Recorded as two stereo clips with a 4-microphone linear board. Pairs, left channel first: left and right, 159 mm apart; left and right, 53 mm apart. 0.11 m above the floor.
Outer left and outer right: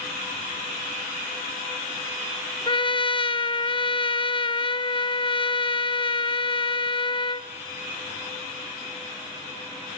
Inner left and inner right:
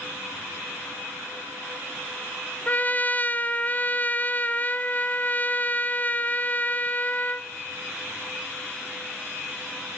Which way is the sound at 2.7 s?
35° left (ahead or behind).